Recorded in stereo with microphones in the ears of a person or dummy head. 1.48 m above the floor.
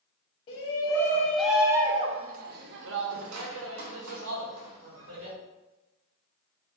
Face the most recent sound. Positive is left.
turn(degrees=-80)